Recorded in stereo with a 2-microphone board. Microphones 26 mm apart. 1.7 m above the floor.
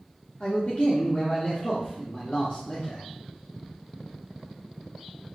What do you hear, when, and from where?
0.4 s a man speaking: 50° left (ahead or behind), 0.8 m